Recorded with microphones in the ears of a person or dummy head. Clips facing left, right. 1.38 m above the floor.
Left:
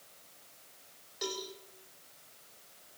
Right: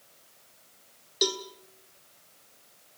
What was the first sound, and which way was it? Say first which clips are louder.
A cowbell: right 9 dB; 50° right (ahead or behind).